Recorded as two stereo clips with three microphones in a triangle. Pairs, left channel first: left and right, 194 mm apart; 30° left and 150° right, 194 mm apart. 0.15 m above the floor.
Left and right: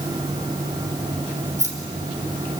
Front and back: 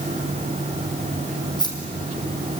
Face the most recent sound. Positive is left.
turn(degrees=-40)